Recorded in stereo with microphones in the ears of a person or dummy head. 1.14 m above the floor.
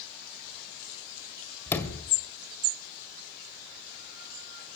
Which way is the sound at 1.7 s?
15° left (ahead or behind).